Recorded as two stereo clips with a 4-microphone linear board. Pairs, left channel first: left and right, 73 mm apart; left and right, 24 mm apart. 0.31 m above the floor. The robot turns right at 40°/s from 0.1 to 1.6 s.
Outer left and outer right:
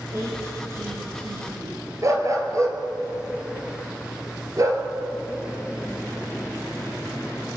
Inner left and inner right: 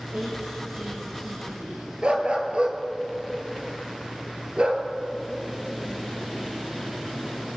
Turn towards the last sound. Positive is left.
turn(degrees=-45)  # may be behind; listen again after turning